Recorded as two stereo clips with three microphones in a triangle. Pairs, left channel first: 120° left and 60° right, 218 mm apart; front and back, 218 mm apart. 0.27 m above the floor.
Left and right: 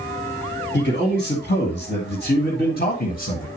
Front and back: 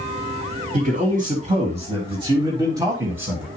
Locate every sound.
0.7 s a man speaking: 140° left, 2.5 m; by 3.5 s 100° left, 1.7 m